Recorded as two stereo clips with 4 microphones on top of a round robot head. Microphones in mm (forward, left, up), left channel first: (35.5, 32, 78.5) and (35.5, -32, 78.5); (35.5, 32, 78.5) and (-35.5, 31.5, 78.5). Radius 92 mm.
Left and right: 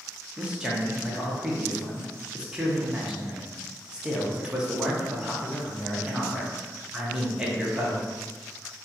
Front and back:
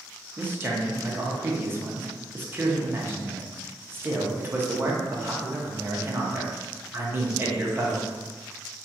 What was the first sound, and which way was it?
A man speaking, 160° right.